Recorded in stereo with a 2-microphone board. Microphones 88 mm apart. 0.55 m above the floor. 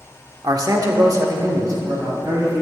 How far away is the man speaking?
About 1.0 m.